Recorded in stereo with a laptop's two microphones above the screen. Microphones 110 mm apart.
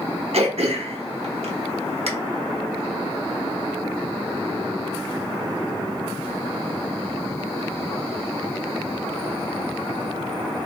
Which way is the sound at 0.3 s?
70° right (ahead or behind).